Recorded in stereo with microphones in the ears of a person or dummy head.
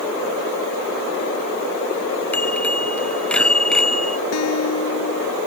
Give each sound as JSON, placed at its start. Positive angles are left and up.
{"t": 2.3, "sound": "a bicycle bell", "side_deg": 10}
{"t": 4.3, "sound": "a guitar", "side_deg": 85}